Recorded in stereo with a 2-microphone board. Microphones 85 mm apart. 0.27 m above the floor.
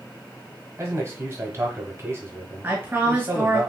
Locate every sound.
0.8 s a man speaking: 30° right (ahead or behind), 1.2 m
2.6 s a woman speaking: 20° right (ahead or behind), 1.8 m